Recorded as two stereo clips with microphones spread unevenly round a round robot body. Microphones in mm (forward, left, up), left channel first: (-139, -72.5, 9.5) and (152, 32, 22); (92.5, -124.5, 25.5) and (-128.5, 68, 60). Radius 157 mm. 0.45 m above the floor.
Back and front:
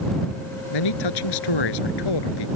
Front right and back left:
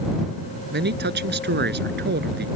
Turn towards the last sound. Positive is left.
turn(degrees=-165)